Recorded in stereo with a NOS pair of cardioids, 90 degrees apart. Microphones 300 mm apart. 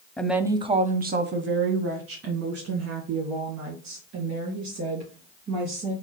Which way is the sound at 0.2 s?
5° left.